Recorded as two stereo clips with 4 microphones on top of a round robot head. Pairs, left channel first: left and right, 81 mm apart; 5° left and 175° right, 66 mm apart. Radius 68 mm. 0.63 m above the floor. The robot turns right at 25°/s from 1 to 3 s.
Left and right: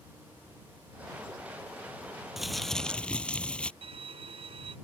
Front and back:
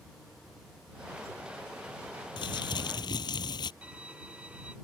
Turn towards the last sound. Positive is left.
turn(degrees=-100)